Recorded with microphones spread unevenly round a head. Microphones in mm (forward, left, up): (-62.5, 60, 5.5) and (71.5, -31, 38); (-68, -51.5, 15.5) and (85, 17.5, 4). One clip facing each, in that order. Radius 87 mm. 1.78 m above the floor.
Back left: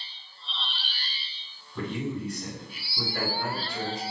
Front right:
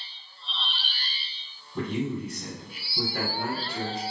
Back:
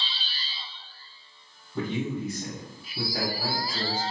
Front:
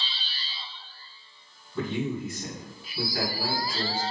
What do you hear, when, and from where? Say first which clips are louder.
1.8 s a man speaking: front right 2 dB, even; 100° right, 1.4 m